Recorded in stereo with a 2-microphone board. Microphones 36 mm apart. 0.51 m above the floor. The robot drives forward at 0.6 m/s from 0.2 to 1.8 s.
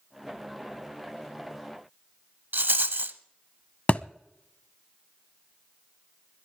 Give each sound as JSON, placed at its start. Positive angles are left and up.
{"t": 2.5, "sound": "a rattle", "side_deg": -75, "distance_m": 0.8}
{"t": 3.9, "sound": "a thud", "side_deg": 40, "distance_m": 0.6}